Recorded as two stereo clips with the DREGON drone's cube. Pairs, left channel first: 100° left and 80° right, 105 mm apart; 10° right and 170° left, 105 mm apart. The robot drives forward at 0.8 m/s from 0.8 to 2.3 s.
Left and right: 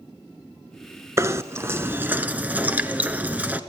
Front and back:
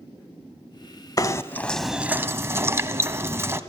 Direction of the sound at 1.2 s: 35° right.